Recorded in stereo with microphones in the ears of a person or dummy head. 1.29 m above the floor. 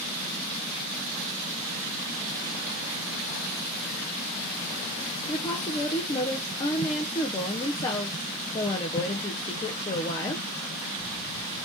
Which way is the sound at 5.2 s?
20° left (ahead or behind).